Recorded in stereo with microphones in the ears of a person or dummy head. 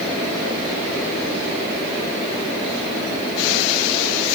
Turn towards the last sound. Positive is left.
No sound to turn to.